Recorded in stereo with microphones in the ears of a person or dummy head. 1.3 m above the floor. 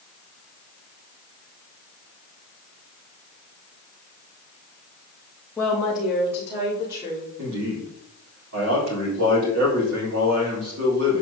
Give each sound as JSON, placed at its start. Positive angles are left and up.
{"t": 5.6, "sound": "a woman speaking", "side_deg": 15, "distance_m": 1.9}
{"t": 7.4, "sound": "a man speaking", "side_deg": -65, "distance_m": 3.5}